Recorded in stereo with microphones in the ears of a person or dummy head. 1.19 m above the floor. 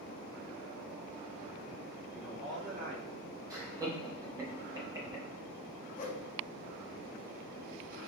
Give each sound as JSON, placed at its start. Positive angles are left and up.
{"t": 2.1, "sound": "a man speaking", "side_deg": -10, "distance_m": 1.1}
{"t": 3.5, "sound": "laughter", "side_deg": -15, "distance_m": 1.0}
{"t": 6.0, "sound": "a whoosh", "side_deg": 45, "distance_m": 0.6}